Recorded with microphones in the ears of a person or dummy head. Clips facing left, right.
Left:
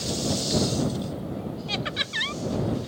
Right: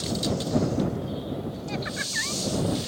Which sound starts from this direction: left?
Laughter, at 1.7 s.